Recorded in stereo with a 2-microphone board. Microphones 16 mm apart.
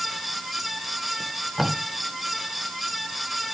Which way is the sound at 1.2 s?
10° right (ahead or behind).